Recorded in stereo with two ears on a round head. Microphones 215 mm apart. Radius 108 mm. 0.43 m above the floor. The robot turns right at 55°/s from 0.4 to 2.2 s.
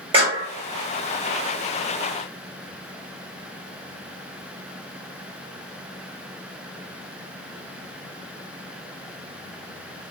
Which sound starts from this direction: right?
A clap, at 0.1 s.